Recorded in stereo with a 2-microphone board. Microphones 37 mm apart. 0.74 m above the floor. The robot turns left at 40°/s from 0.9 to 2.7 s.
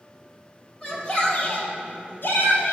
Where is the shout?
30° left (ahead or behind), 2.5 m; by 2.7 s 70° left (ahead or behind), 2.5 m.